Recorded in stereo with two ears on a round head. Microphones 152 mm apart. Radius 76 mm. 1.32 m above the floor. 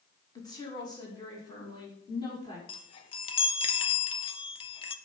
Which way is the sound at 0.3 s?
25° left (ahead or behind).